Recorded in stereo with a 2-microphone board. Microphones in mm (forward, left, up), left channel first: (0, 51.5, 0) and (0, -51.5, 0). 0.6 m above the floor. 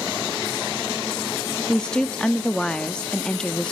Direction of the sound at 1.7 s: 5° left (ahead or behind).